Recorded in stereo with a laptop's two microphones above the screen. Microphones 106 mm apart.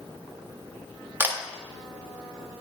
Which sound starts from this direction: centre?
A camera shutter, at 1.2 s.